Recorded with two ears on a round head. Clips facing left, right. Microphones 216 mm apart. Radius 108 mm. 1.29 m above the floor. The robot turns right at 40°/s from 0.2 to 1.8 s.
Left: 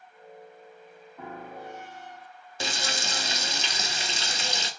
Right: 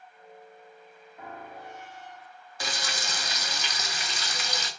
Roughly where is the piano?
Left.